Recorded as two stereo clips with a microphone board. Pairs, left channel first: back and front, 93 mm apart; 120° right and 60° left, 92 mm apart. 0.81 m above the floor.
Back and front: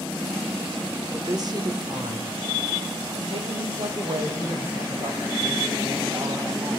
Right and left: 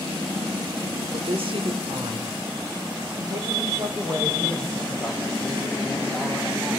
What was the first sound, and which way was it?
A woman speaking, 50° left.